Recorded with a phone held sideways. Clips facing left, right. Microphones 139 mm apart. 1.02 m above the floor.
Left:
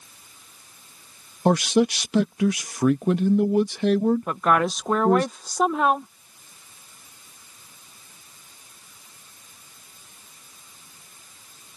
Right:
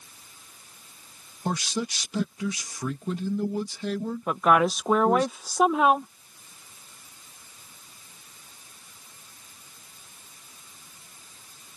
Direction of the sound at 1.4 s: 65° left (ahead or behind).